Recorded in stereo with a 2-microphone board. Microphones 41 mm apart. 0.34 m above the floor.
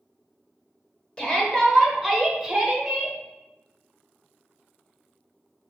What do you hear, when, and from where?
1.2 s a shout: 20° left (ahead or behind), 1.0 m; by 3.2 s 10° right (ahead or behind), 1.3 m